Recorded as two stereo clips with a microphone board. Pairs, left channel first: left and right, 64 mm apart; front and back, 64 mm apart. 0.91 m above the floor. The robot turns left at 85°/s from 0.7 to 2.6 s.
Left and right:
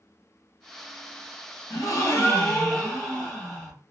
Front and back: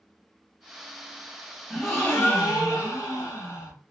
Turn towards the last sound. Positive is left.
turn(degrees=25)